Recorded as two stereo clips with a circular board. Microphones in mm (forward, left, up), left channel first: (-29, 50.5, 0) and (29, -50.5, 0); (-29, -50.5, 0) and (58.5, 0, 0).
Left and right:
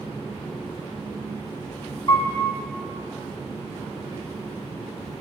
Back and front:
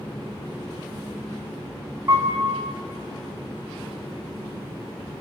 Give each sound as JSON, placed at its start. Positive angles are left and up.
{"t": 2.1, "sound": "a piano", "azimuth_deg": 80, "distance_m": 0.8}